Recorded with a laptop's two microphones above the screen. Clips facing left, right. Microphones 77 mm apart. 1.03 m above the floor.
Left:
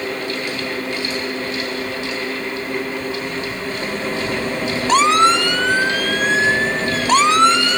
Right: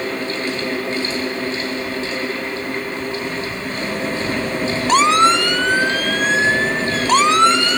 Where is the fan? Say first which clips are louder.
Right 1 dB; 35° right (ahead or behind), 4 m.